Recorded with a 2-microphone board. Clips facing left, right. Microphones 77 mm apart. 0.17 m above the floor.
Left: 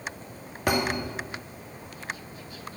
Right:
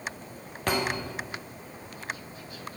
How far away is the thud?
About 1.9 m.